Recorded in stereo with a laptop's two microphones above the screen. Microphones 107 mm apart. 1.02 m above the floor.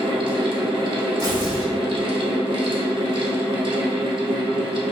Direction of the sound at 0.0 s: 50° right (ahead or behind).